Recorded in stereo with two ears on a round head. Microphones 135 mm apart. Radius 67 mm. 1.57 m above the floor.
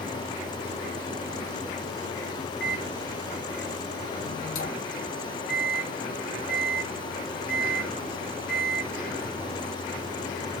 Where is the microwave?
65° left (ahead or behind), 0.9 m.